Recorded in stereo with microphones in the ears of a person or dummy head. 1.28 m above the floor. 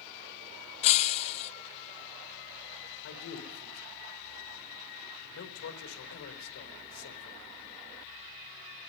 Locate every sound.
0.8 s breaking glass: 35° left (ahead or behind), 0.7 m
3.0 s a man speaking: 80° left, 4.5 m